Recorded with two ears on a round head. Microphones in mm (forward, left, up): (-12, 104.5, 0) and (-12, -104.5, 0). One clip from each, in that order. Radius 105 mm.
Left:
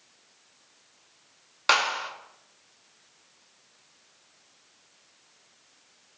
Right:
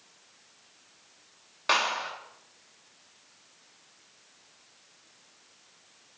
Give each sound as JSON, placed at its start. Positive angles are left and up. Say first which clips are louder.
{"t": 1.7, "sound": "a clap", "louder": "left 3 dB", "side_deg": 45, "distance_m": 2.0}